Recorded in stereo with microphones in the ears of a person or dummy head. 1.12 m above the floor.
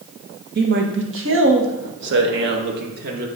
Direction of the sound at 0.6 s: 50° right (ahead or behind).